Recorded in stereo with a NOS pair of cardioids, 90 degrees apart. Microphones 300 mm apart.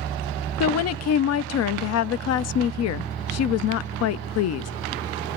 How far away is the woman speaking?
About 0.5 m.